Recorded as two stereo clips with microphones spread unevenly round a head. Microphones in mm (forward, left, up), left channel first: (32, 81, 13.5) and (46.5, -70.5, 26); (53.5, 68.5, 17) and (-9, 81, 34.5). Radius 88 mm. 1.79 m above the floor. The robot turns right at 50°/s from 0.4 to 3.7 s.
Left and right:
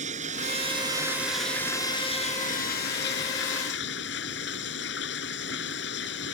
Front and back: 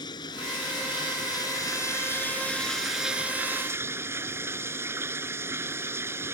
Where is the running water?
45° right; by 6.3 s 120° left.